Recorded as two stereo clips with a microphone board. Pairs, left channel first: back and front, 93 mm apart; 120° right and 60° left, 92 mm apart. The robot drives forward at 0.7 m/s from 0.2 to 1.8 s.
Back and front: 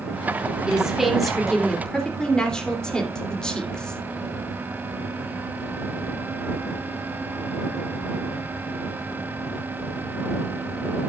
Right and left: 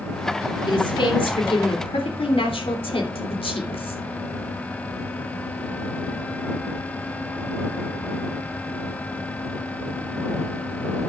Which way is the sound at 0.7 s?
80° right.